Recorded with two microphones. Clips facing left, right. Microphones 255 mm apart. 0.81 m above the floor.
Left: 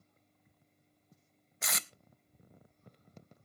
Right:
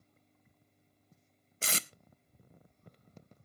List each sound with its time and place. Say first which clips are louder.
1.6 s tape being pulled: right 4 dB; 30° right (ahead or behind), 0.6 m